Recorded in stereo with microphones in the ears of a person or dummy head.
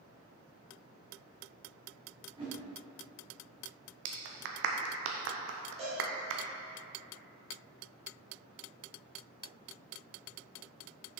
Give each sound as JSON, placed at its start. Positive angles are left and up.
{"t": 2.4, "sound": "a whoosh", "side_deg": -25, "distance_m": 2.5}
{"t": 4.0, "sound": "a clap", "side_deg": -55, "distance_m": 0.8}
{"t": 5.8, "sound": "a cowbell", "side_deg": -35, "distance_m": 1.8}